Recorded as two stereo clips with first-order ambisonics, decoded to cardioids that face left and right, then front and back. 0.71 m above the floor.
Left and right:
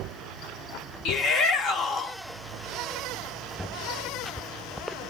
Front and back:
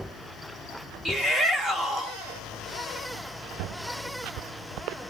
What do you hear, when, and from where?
1.1 s a shout: 110° left, 0.9 m